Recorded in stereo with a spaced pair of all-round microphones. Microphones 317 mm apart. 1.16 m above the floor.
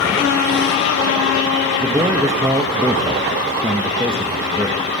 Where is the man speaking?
10° right (ahead or behind), 1.4 m.